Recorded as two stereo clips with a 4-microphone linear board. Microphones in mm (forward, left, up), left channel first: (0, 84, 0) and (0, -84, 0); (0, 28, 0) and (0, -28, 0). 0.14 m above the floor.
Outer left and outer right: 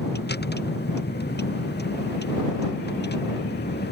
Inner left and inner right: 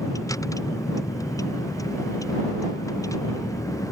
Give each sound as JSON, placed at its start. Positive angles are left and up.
{"t": 0.0, "sound": "a vehicle", "side_deg": 80}